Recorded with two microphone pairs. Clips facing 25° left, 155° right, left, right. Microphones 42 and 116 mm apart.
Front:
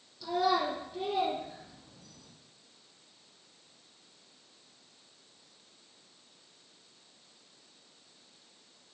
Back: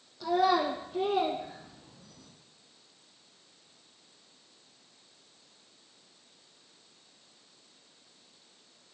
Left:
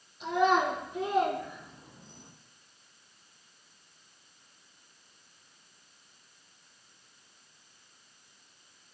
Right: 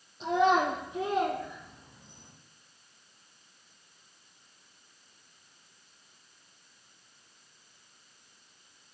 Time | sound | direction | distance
0.2 | a child speaking | 150° right | 2 m